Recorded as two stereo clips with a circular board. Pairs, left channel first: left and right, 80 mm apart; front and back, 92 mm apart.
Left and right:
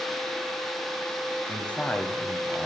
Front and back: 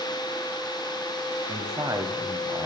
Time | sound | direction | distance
1.5 | a man speaking | 155° left | 1.3 m